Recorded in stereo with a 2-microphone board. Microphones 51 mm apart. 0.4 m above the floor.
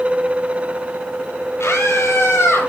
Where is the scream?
55° left (ahead or behind), 9 m; by 2.7 s 50° left (ahead or behind), 10.5 m.